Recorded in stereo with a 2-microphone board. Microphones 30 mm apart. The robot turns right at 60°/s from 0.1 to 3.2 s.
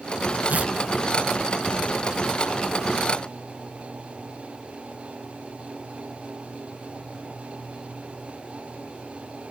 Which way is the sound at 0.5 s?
65° right (ahead or behind).